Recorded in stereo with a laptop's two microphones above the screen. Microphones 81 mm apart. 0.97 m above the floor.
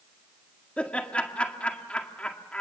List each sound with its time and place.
0.8 s laughter: 15° left (ahead or behind), 1.9 m